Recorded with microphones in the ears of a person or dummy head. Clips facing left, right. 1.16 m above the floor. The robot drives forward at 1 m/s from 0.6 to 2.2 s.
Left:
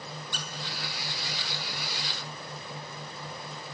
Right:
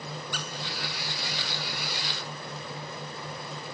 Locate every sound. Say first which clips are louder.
0.3 s a squeak: right 3 dB; 30° left (ahead or behind), 0.8 m